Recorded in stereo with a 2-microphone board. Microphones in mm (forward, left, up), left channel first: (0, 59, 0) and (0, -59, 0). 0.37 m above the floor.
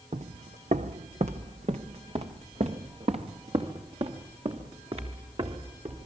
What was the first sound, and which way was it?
Footsteps, 75° right (ahead or behind).